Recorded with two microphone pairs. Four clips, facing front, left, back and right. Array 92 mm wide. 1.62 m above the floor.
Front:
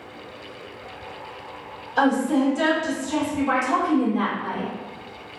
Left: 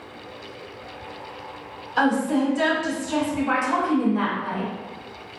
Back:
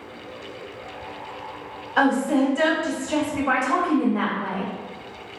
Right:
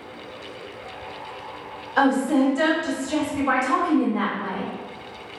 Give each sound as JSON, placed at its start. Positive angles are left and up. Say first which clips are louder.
{"t": 2.0, "sound": "a woman speaking", "louder": "right 2 dB, even", "azimuth_deg": -145, "distance_m": 1.3}